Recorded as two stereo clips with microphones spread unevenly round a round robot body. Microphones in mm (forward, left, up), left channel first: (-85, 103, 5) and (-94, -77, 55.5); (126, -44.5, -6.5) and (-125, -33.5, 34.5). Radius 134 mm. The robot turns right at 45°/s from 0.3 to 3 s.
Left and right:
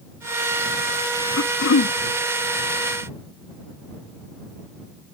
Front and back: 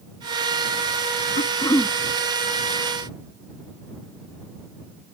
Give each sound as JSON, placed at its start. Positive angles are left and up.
{"t": 1.4, "sound": "throat clearing", "azimuth_deg": 60}